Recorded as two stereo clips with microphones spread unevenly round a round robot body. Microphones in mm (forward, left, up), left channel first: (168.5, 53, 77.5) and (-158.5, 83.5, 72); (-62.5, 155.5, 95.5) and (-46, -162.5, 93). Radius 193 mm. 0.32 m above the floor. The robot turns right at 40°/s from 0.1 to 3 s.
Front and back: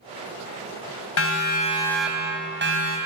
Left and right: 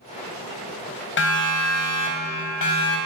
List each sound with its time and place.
1.2 s a siren: 40° left, 3 m; by 3.0 s 135° left, 3 m